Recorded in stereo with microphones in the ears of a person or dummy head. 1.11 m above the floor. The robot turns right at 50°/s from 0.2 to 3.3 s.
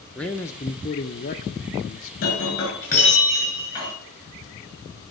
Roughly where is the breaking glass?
Left.